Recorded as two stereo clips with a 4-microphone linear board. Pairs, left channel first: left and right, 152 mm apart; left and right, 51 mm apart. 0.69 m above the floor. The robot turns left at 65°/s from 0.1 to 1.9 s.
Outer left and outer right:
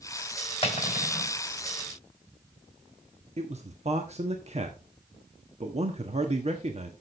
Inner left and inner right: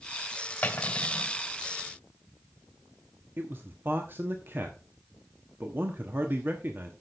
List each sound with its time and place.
0.6 s cutlery clinking: 140° left, 2 m; by 1.4 s 90° left, 2 m
3.4 s a man speaking: 45° right (ahead or behind), 1.2 m